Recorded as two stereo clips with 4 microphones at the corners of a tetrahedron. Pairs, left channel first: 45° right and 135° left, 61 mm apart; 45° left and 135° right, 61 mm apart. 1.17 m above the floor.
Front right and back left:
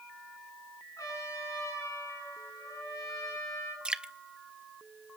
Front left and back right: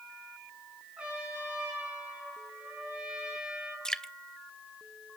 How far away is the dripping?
About 0.6 m.